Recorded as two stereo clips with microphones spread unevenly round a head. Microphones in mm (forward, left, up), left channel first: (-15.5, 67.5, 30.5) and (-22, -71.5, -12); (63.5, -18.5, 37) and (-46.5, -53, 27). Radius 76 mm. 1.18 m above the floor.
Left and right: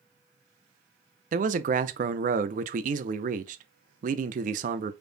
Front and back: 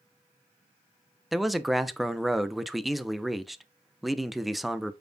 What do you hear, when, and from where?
1.3 s a man speaking: 75° right, 0.6 m